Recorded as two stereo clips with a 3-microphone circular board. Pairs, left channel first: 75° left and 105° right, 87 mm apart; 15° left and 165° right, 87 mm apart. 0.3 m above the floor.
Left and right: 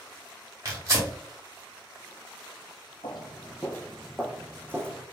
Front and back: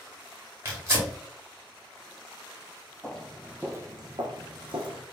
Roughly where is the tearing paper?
Behind right.